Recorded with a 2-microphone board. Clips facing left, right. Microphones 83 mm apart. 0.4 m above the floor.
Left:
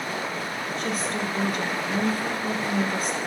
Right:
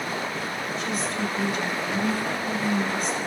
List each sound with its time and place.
0.8 s a woman speaking: 50° left (ahead or behind), 1.6 m